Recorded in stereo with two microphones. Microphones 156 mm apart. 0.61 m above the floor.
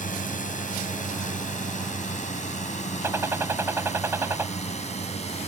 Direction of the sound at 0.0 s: 60° left (ahead or behind).